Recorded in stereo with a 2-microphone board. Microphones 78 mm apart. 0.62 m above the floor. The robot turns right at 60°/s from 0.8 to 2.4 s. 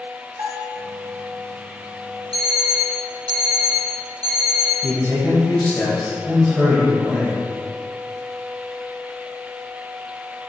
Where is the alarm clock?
65° right (ahead or behind), 2.5 m; by 4.7 s 60° right (ahead or behind), 2.5 m.